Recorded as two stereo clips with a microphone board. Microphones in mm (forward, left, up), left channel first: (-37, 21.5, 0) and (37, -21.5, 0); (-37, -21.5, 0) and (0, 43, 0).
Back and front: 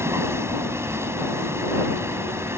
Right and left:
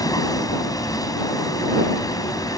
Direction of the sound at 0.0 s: 90° right.